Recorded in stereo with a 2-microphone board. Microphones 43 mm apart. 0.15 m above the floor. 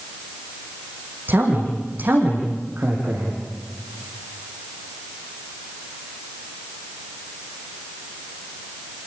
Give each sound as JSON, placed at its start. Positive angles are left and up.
{"t": 1.3, "sound": "a man speaking", "side_deg": -50, "distance_m": 7.0}